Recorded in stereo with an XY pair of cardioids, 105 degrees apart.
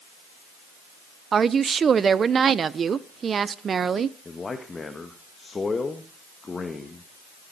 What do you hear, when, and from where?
1.3 s a woman speaking: 45° right, 0.8 m
4.2 s a man speaking: 30° left, 1.8 m